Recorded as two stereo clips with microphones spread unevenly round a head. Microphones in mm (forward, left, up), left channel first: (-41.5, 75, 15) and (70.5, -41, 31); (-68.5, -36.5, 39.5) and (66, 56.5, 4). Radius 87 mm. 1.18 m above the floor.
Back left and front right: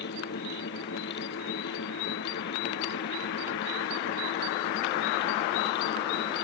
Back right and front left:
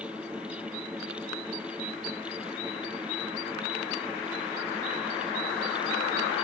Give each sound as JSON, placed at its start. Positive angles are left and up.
{"t": 0.0, "sound": "a fan", "azimuth_deg": 120}